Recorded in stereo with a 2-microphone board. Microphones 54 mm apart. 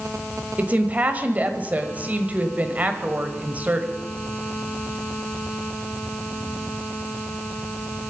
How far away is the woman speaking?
About 1.5 m.